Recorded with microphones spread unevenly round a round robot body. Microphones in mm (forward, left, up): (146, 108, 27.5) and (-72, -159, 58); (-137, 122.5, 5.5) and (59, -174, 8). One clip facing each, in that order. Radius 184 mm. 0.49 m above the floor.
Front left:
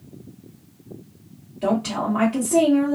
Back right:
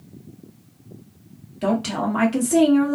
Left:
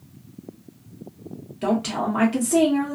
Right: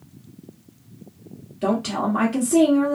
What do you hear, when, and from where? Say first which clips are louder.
1.6 s a woman speaking: even, right 1 dB; 160° right, 1.2 m